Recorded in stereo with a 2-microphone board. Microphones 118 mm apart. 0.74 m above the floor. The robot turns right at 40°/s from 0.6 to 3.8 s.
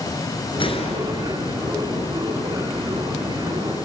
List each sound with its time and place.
0.6 s a gunshot: 45° left, 3 m; by 1.6 s 85° left, 3 m